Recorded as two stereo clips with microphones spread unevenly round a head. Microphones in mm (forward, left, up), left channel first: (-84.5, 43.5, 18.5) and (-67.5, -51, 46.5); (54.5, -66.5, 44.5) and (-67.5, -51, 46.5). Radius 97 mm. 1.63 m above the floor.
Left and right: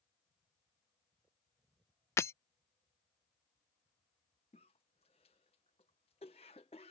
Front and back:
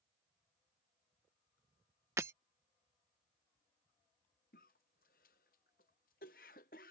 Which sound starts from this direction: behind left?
Breaking glass, at 2.2 s.